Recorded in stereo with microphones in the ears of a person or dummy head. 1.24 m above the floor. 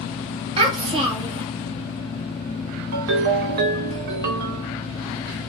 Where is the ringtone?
60° right (ahead or behind), 0.9 m.